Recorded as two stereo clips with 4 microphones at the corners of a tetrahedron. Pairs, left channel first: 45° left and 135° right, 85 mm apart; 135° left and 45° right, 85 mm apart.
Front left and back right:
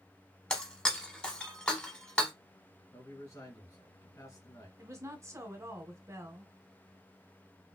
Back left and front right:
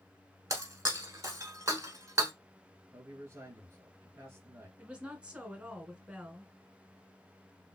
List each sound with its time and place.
0.5 s breaking glass: 30° right, 0.9 m
2.9 s a man speaking: 5° left, 1.9 m
4.8 s a woman speaking: 115° right, 1.2 m